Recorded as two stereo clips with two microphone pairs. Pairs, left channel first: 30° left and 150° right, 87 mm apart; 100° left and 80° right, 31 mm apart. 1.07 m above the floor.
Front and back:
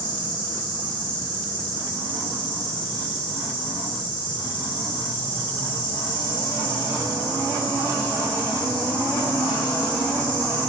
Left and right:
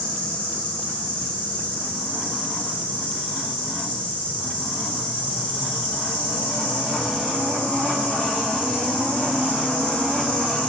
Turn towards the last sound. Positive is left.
turn(degrees=45)